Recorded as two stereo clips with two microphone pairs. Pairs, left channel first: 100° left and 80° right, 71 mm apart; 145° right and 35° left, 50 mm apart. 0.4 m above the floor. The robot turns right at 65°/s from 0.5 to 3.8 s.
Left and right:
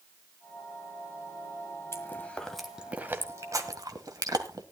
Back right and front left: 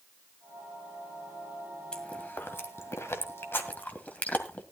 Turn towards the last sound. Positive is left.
turn(degrees=-90)